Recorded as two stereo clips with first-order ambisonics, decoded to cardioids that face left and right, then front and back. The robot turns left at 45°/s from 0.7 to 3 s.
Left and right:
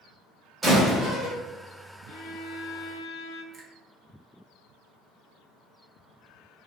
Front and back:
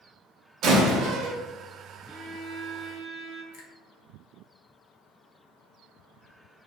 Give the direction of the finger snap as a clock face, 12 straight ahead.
1 o'clock.